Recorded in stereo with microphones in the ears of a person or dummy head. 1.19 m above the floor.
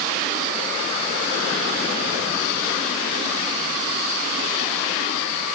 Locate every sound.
Only background noise.